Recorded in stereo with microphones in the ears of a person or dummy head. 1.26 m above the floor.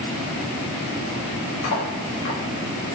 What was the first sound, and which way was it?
Cutlery clinking, 65° left (ahead or behind).